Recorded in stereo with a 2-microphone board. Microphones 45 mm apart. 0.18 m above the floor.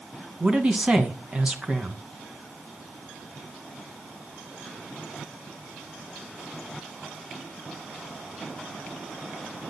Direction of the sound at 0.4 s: 25° right (ahead or behind).